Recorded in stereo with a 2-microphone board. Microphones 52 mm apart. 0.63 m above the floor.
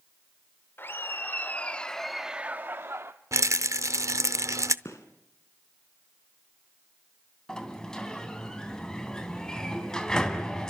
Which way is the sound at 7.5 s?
10° left (ahead or behind).